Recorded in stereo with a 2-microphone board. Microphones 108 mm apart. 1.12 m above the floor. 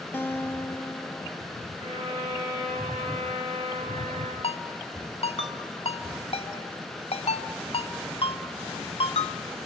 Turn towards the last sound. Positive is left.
turn(degrees=60)  # may be behind; listen again after turning